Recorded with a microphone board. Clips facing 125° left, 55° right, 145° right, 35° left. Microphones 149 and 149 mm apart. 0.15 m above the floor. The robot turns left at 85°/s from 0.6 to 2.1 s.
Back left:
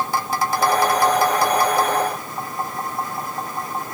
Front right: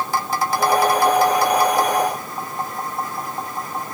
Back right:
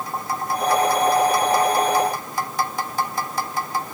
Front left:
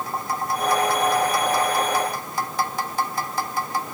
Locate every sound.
Only background noise.